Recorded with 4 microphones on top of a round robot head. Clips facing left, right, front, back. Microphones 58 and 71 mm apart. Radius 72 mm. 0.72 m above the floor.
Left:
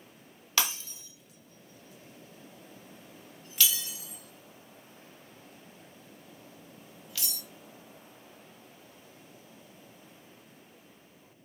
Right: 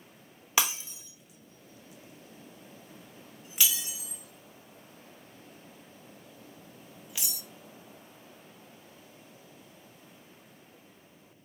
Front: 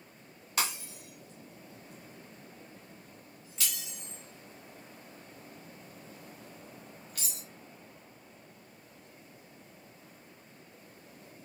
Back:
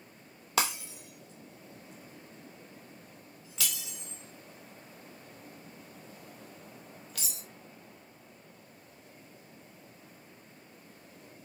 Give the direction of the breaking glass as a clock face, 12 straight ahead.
5 o'clock.